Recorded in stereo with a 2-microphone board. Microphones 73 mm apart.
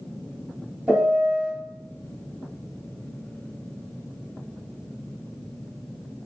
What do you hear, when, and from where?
0.9 s a piano: 20° right (ahead or behind), 1.5 m